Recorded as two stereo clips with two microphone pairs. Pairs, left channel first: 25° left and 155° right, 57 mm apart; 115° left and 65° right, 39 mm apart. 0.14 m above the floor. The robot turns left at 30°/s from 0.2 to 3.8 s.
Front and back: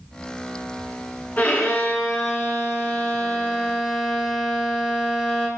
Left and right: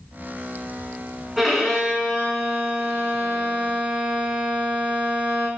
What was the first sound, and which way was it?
A violin, 15° left.